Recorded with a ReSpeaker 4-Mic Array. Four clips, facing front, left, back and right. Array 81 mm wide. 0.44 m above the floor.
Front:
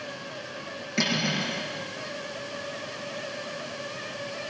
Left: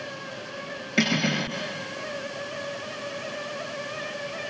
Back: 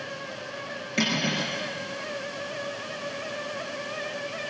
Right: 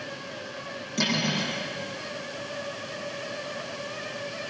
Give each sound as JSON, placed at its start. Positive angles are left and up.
{"t": 1.0, "sound": "cutlery clinking", "azimuth_deg": 95, "distance_m": 5.0}